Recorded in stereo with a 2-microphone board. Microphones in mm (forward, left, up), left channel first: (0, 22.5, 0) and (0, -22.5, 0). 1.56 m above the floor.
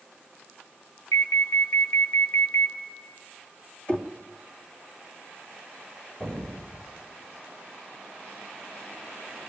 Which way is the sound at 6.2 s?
10° left (ahead or behind).